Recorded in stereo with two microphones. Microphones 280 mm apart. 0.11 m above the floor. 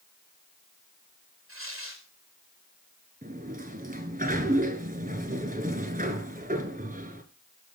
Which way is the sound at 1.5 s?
50° right (ahead or behind).